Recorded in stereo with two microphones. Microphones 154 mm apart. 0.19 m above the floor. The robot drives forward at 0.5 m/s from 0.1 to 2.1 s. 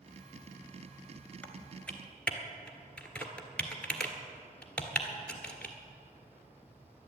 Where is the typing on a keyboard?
10° left (ahead or behind), 1.1 m; by 5.8 s 5° left (ahead or behind), 1.4 m.